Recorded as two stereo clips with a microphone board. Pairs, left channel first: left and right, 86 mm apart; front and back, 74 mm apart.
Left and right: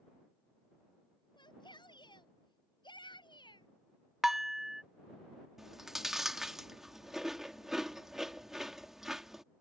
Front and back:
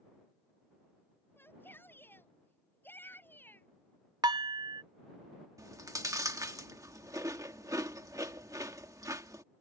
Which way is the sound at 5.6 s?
175° right.